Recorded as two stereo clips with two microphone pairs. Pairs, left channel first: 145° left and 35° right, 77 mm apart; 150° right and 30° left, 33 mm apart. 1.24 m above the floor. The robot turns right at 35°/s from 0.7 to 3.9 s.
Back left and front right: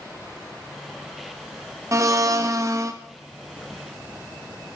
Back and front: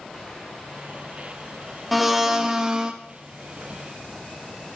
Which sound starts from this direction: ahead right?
A blender, at 1.9 s.